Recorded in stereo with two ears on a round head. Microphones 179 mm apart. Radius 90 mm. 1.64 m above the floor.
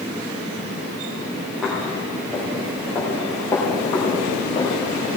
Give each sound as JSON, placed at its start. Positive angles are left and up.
{"t": 1.6, "sound": "footsteps", "side_deg": -5, "distance_m": 5.0}